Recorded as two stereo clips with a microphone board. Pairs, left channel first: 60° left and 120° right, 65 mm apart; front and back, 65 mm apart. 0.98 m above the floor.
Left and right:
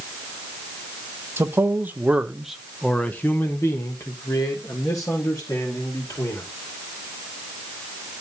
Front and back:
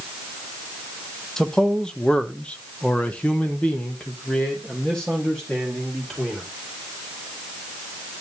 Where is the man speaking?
80° right, 1.3 m; by 6.5 s 80° left, 3 m.